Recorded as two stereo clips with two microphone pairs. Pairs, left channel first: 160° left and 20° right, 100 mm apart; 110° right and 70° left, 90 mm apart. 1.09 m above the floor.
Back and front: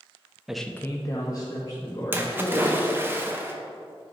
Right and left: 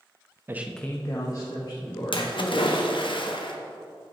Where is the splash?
90° right, 1.0 m.